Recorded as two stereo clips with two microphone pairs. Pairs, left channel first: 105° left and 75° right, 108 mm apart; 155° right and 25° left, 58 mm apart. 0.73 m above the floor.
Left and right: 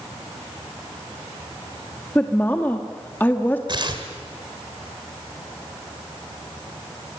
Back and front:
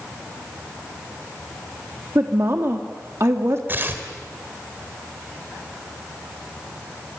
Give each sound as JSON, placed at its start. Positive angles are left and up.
{"t": 2.1, "sound": "a woman speaking", "azimuth_deg": 40, "distance_m": 1.5}
{"t": 3.7, "sound": "tearing paper", "azimuth_deg": -30, "distance_m": 2.5}